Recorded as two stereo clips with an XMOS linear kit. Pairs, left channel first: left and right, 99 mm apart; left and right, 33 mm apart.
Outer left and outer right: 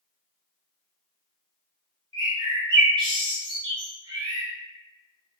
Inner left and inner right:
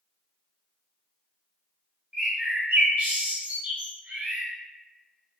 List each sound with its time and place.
2.1 s a bird: 60° right (ahead or behind), 2.0 m